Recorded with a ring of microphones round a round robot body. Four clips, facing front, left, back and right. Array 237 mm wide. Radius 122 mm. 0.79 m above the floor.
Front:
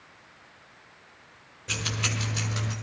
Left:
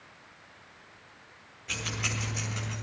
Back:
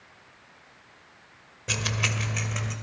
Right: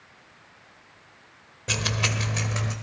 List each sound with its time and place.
1.7 s keys jangling: 115° right, 2 m; by 2.7 s 100° right, 2.5 m